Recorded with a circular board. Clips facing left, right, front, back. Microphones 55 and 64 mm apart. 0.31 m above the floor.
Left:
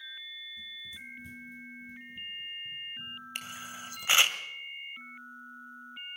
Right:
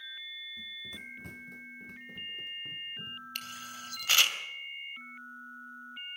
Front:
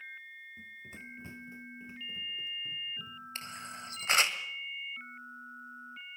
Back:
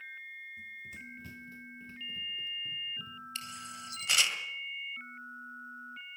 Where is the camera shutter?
30° left, 1.9 m.